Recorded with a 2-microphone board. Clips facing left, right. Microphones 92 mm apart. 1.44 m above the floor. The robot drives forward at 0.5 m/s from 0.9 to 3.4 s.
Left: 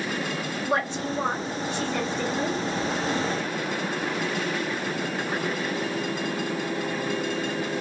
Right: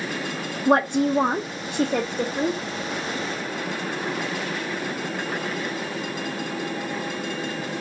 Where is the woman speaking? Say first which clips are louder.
Right 9 dB; 50° right (ahead or behind), 0.5 m; by 2.6 s 30° right (ahead or behind), 0.8 m.